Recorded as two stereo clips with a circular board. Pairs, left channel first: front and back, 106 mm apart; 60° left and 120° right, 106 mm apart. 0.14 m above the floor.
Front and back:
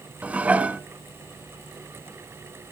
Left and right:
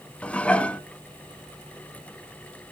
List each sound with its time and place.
0.2 s dishes clattering: 120° left, 0.8 m